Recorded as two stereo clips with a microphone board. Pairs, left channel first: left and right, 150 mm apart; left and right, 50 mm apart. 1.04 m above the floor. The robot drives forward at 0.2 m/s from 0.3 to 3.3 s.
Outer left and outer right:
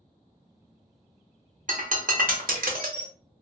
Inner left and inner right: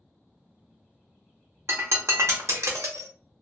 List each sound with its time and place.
1.7 s breaking glass: 60° right (ahead or behind), 0.7 m; by 3.1 s 75° right (ahead or behind), 0.7 m